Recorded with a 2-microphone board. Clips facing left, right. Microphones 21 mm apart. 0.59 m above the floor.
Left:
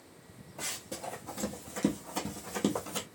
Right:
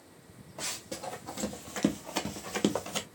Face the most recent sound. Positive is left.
turn(degrees=-25)  # may be behind; listen again after turning